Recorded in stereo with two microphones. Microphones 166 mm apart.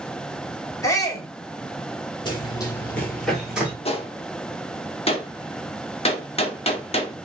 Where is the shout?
20° left (ahead or behind), 0.9 m.